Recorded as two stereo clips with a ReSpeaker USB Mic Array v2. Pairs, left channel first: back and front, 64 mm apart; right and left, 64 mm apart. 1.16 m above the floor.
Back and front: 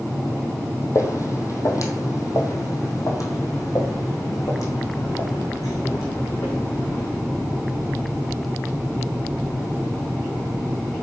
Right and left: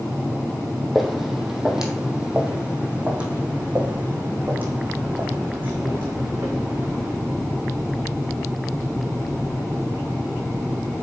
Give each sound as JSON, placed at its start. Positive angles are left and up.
{"t": 0.9, "sound": "footsteps", "azimuth_deg": 180, "distance_m": 1.8}